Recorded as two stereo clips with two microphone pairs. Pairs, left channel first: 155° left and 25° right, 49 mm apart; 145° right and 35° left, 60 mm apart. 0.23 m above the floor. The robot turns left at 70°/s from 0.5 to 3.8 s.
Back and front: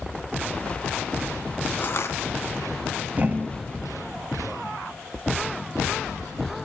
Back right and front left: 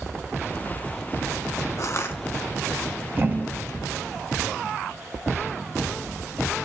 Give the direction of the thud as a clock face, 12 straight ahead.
11 o'clock.